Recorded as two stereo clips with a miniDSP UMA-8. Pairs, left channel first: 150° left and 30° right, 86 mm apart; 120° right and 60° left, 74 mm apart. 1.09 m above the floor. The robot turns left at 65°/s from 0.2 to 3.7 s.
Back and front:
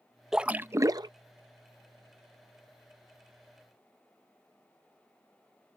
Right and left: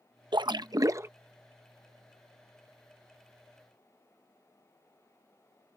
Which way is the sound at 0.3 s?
55° left.